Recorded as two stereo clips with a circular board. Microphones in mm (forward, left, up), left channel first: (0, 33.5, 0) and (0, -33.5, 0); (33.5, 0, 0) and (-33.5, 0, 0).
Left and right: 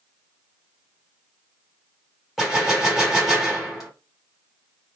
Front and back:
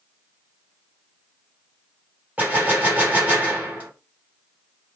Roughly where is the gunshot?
Behind.